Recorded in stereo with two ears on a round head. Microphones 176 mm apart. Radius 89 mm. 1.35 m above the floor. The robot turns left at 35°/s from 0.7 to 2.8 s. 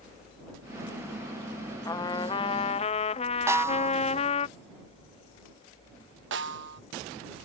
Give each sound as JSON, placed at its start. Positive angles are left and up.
{"t": 1.9, "sound": "a trumpet", "azimuth_deg": 150}
{"t": 3.5, "sound": "a snare drum", "side_deg": -15}
{"t": 6.3, "sound": "a snare drum", "side_deg": -65}